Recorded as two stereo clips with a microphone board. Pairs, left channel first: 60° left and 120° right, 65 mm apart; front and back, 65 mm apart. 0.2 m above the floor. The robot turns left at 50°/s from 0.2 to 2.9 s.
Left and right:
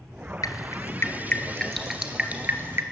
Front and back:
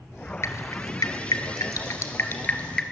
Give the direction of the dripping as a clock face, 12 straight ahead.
11 o'clock.